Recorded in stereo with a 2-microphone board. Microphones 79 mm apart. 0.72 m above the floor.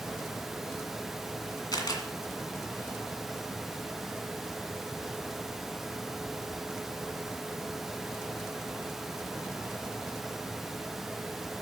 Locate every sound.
1.7 s a camera shutter: 60° left (ahead or behind), 1.9 m